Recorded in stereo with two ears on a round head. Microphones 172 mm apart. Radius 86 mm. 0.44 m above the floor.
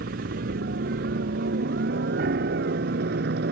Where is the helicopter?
55° right (ahead or behind).